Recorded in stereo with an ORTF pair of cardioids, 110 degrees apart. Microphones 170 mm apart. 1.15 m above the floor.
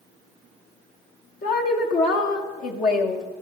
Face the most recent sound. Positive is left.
turn(degrees=55)